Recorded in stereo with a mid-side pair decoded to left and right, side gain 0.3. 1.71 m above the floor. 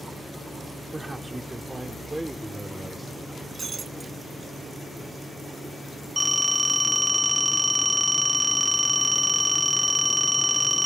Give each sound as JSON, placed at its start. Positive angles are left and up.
{"t": 0.9, "sound": "a man speaking", "azimuth_deg": -25}
{"t": 3.5, "sound": "breaking glass", "azimuth_deg": -50}
{"t": 6.2, "sound": "a phone ringing", "azimuth_deg": 0}